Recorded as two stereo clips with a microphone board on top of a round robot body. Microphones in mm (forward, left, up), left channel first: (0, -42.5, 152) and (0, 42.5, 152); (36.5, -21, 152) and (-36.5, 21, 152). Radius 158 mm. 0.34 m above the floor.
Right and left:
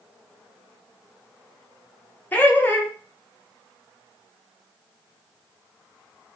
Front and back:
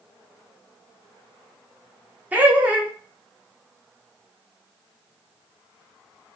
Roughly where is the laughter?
Behind right.